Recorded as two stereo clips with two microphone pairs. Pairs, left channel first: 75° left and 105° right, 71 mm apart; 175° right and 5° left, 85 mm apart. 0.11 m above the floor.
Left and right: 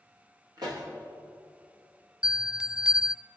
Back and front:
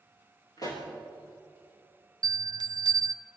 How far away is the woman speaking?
No woman speaking in this recording.